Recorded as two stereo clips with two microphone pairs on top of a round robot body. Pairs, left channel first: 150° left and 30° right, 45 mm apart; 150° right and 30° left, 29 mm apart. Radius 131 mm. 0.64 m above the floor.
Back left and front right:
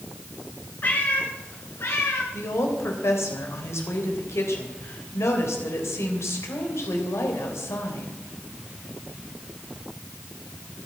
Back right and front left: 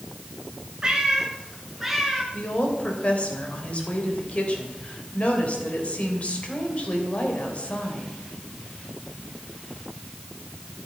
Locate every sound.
0.8 s a cat meowing: 100° left, 2.5 m; by 2.2 s 125° left, 2.5 m
2.3 s a woman speaking: 165° left, 3.5 m